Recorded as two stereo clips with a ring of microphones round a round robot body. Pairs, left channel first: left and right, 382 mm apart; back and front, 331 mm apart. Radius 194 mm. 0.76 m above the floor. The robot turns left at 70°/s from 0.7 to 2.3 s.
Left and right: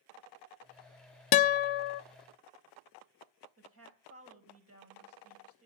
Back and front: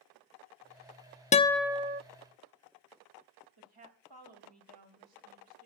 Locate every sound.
1.3 s a guitar: 110° left, 0.6 m; by 2.0 s 60° left, 0.6 m
3.6 s a woman speaking: 30° right, 4 m